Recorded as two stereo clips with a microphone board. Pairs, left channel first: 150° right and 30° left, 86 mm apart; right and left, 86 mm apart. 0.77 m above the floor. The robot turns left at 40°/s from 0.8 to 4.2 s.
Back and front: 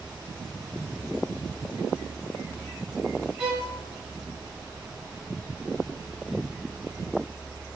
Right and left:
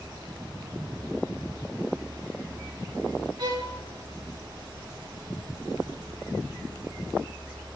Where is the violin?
105° left, 1.0 m; by 3.7 s 90° left, 1.0 m.